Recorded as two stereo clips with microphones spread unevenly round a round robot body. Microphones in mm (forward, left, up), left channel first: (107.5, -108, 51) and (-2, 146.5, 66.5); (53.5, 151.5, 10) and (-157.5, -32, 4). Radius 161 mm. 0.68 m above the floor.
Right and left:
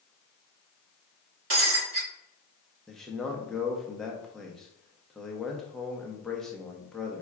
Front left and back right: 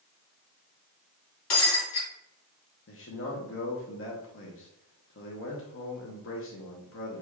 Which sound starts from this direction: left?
Breaking glass, at 1.5 s.